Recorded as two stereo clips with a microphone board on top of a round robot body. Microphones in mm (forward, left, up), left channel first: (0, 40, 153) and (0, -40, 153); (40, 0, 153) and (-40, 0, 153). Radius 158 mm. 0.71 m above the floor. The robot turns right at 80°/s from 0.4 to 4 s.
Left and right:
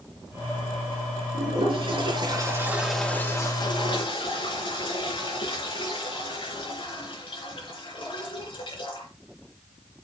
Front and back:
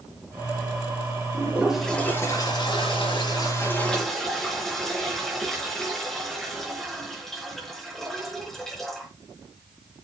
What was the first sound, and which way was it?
A toilet flushing, 125° right.